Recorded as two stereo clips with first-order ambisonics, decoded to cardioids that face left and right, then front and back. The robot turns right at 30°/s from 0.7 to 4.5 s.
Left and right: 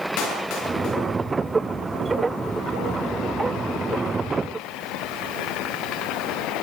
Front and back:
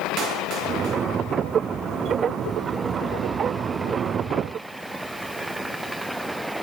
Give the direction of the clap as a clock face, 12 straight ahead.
8 o'clock.